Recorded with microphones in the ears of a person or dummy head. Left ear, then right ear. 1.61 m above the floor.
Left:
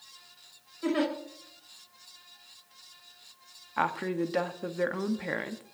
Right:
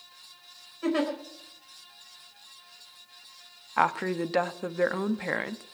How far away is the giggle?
About 5 m.